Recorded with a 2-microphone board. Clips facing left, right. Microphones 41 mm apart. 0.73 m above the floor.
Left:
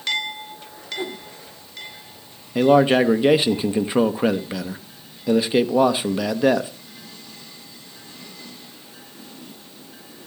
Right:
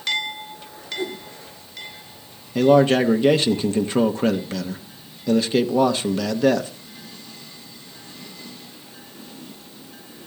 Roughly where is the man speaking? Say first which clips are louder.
Even; centre.